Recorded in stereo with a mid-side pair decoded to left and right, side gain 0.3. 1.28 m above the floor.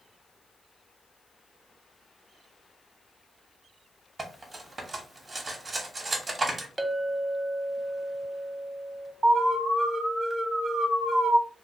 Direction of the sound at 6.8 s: 15° right.